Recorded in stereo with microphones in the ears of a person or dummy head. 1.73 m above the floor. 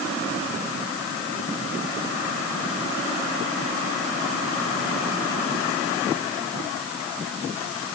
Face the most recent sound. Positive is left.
No sound to turn to.